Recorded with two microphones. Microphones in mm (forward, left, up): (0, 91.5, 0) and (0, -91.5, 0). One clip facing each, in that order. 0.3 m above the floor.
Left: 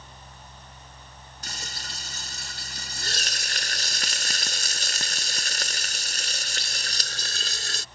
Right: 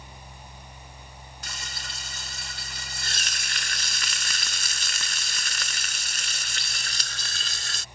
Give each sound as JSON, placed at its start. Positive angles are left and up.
{"t": 1.4, "sound": "frying", "side_deg": 45}